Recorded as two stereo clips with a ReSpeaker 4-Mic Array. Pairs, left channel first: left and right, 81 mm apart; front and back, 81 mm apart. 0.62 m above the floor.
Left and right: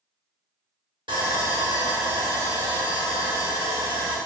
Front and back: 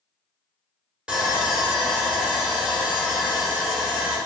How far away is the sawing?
About 0.9 m.